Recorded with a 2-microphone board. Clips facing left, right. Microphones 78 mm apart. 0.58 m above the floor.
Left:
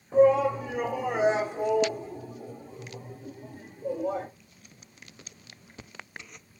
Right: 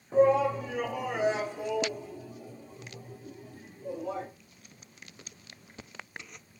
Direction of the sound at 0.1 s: 5° right (ahead or behind).